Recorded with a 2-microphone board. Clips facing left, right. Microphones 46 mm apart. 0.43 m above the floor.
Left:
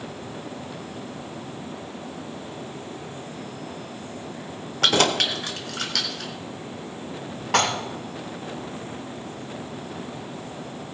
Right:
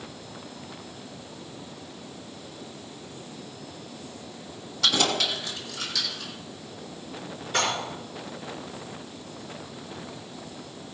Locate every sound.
4.8 s keys jangling: 45° left (ahead or behind), 1.0 m; by 6.3 s 60° left (ahead or behind), 2.5 m
7.5 s dishes clattering: 75° left (ahead or behind), 2 m